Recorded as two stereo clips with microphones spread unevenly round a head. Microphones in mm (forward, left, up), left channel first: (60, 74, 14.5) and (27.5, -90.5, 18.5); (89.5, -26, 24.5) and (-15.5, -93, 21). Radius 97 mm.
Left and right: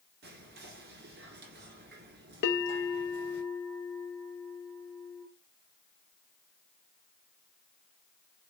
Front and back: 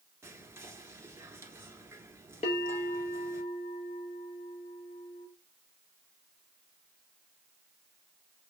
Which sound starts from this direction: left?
A bell, at 2.4 s.